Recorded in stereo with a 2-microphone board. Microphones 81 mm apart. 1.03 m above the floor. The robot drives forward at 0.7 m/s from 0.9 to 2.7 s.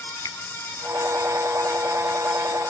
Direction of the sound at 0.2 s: 45° left (ahead or behind).